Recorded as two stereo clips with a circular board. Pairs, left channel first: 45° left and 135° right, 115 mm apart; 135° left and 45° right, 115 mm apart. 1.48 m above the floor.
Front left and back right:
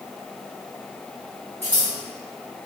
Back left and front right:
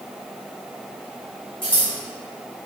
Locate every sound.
1.6 s scissors: 110° left, 1.2 m